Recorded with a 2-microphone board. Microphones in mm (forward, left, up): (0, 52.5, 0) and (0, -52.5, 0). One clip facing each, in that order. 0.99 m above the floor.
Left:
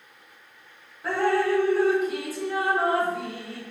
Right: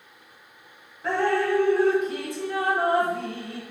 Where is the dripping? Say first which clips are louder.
Even; 5° left (ahead or behind), 3 m.